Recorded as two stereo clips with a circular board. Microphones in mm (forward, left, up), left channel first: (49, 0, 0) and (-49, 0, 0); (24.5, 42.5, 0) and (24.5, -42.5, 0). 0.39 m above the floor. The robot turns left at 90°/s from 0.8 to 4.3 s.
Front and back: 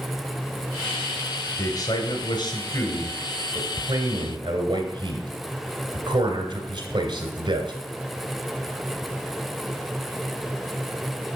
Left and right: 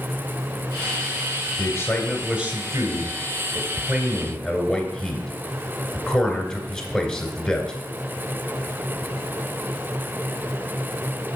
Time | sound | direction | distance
1.6 | a man speaking | 50° left | 2 m